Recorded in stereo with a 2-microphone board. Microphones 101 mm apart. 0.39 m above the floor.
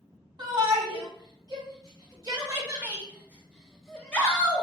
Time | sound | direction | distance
0.4 | a shout | 45° right (ahead or behind) | 2.0 m